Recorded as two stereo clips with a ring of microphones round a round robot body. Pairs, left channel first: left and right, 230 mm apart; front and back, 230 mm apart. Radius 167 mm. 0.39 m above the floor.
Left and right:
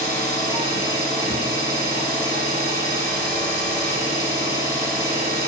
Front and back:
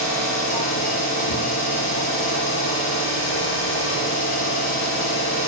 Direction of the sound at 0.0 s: 35° right.